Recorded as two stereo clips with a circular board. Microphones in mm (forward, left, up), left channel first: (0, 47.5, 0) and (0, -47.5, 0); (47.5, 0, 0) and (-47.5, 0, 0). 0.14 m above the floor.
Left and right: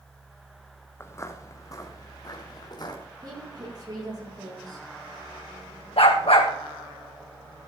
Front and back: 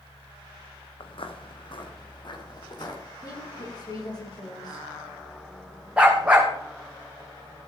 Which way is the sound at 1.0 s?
25° left.